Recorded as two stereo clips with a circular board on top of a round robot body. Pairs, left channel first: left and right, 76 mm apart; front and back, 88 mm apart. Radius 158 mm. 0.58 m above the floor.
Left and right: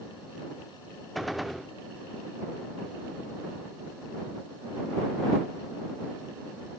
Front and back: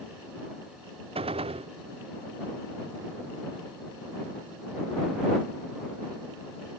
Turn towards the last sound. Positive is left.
turn(degrees=180)